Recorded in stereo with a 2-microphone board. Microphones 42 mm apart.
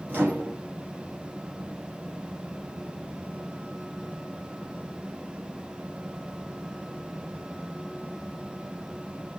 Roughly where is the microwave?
Right.